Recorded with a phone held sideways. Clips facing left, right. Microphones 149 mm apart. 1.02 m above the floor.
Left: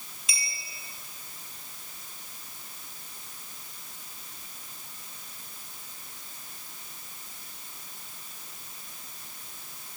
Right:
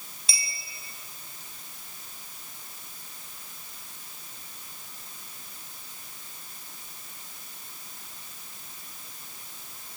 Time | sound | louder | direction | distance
0.3 | a clink | right 1 dB | 35° right (ahead or behind) | 6 m